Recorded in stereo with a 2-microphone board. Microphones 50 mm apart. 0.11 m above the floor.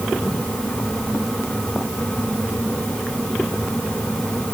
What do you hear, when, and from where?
Only background noise.